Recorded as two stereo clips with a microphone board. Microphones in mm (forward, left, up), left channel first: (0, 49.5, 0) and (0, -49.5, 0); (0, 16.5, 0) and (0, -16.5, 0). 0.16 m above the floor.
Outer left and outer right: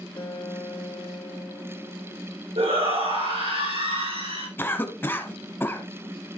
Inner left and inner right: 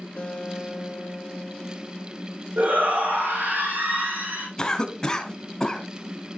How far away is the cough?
About 1.2 m.